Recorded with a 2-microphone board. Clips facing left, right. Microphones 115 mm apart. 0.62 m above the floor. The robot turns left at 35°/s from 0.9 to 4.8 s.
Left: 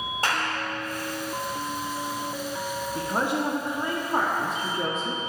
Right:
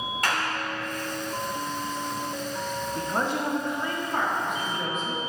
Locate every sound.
0.2 s a clap: 30° left (ahead or behind), 1.9 m
3.0 s a woman speaking: 170° left, 1.0 m; by 5.2 s 105° left, 1.0 m